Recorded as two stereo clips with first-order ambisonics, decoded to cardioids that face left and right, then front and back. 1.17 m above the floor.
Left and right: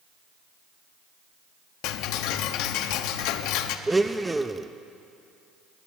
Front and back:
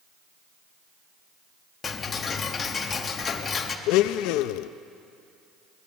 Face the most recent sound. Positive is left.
turn(degrees=-10)